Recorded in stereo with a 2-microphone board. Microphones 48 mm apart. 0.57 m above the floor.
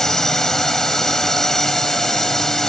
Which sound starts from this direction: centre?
A drone, at 0.0 s.